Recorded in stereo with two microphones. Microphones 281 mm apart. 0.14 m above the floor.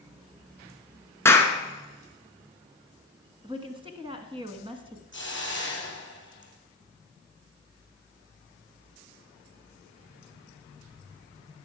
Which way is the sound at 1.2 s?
10° left (ahead or behind).